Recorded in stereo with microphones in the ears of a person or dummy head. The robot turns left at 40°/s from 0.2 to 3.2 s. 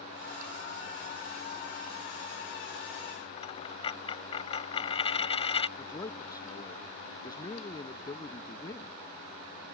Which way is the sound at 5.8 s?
15° left (ahead or behind).